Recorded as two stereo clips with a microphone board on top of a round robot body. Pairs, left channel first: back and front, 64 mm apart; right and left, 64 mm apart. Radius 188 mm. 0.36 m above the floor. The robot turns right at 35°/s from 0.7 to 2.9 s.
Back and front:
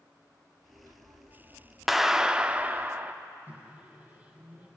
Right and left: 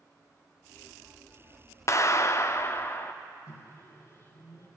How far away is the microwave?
About 4.5 m.